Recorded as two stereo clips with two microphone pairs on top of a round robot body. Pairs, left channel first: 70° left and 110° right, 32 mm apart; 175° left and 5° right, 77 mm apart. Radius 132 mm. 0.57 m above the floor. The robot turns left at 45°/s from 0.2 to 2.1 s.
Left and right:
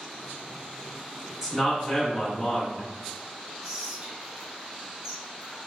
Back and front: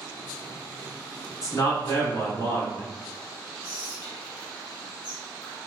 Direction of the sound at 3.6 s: Straight behind.